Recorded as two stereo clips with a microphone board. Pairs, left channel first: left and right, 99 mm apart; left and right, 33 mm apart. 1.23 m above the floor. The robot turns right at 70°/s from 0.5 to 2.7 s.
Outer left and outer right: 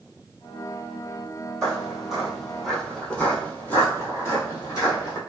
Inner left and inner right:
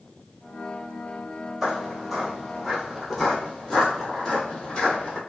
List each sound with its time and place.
1.6 s footsteps: 5° left (ahead or behind), 1.2 m; by 5.2 s 35° left (ahead or behind), 1.9 m